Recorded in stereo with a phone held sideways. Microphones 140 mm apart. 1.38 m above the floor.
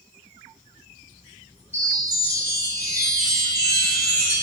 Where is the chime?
15° left (ahead or behind), 3.5 m.